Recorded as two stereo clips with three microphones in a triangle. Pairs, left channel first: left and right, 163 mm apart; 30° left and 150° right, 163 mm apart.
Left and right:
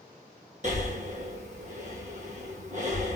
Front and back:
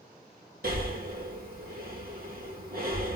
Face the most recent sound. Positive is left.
turn(degrees=-130)